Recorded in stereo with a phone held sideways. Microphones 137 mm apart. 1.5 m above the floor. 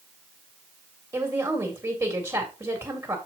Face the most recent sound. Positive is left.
turn(degrees=-25)  # may be behind; listen again after turning